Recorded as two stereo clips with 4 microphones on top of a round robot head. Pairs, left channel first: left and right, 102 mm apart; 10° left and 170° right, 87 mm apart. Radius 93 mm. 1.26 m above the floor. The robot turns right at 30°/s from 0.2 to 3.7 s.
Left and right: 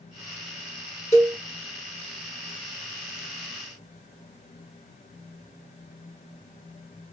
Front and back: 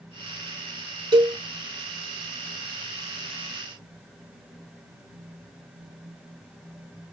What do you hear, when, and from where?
1.1 s a cowbell: 155° left, 3 m; by 1.4 s 165° left, 3 m